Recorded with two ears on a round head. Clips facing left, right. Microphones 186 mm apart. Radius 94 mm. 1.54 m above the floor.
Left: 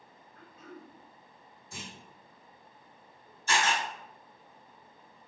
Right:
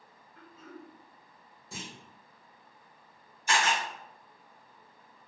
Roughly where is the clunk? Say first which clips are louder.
Right 2 dB; right.